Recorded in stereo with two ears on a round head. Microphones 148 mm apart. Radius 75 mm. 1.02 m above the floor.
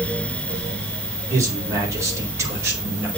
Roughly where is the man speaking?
Centre.